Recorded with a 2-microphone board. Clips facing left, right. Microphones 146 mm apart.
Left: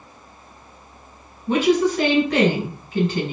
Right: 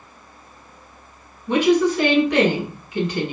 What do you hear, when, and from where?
1.5 s a woman speaking: 35° left (ahead or behind), 2.0 m